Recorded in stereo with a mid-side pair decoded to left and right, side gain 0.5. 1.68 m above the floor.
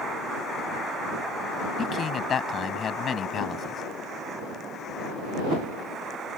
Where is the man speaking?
50° left.